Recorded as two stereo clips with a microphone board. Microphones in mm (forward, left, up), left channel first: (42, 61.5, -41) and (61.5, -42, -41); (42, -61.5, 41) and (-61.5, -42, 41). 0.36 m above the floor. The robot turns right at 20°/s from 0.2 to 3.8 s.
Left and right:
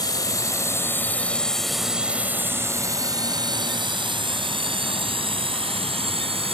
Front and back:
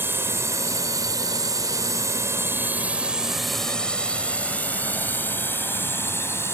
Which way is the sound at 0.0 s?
115° left.